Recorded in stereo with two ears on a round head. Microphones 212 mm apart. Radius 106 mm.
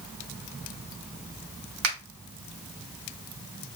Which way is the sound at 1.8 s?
65° right (ahead or behind).